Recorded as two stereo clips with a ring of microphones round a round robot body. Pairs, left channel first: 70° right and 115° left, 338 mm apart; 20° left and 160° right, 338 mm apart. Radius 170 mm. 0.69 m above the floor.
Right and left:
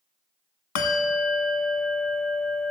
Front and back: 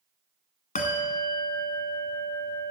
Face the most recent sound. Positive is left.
turn(degrees=-45)